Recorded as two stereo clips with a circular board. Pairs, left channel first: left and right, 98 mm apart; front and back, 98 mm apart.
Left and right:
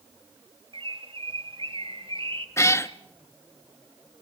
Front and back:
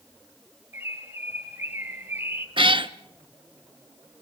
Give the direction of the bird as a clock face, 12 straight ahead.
4 o'clock.